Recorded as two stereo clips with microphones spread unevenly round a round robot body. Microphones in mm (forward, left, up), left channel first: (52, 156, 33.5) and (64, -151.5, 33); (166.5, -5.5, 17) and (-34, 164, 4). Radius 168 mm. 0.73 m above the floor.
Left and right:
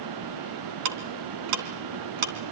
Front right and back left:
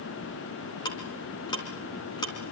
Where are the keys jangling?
I don't hear keys jangling.